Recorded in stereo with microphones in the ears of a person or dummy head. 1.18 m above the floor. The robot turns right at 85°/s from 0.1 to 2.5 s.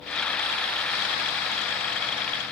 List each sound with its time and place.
Only background noise.